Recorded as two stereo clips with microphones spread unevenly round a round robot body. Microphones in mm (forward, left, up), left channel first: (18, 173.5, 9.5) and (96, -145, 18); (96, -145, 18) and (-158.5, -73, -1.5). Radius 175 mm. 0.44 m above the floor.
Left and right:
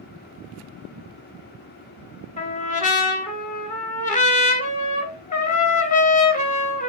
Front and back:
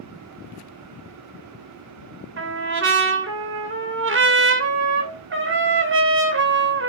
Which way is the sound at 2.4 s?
165° left.